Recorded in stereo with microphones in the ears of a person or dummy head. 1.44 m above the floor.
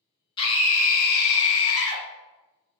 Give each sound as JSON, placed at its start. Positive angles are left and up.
{"t": 0.4, "sound": "a scream", "side_deg": 30, "distance_m": 0.9}